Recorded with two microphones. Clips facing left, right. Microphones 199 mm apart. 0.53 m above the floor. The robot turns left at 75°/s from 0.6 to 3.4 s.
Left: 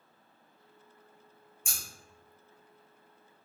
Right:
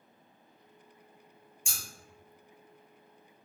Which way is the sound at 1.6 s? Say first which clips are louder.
Left 1 dB; 55° left (ahead or behind).